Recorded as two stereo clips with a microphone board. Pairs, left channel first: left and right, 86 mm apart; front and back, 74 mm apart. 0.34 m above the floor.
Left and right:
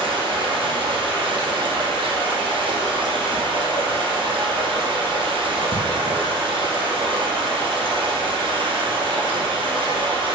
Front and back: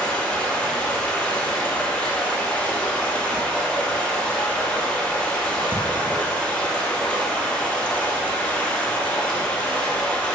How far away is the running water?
About 2 m.